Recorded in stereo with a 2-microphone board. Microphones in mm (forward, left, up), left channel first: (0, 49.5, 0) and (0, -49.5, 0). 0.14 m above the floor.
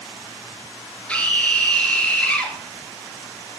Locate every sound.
1.1 s a scream: 10° left (ahead or behind), 2 m